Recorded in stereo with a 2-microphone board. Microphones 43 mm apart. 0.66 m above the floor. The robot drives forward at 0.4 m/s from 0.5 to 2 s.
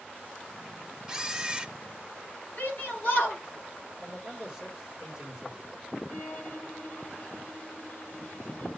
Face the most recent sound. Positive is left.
turn(degrees=50)  # may be behind; listen again after turning